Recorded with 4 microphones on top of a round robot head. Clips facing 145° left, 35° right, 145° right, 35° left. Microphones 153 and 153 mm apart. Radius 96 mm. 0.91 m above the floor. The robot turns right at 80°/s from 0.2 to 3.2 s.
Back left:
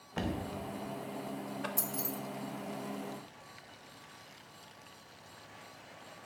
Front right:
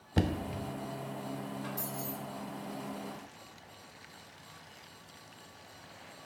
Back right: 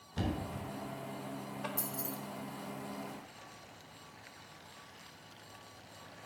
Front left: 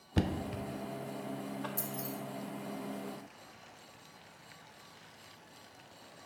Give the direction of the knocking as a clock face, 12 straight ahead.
11 o'clock.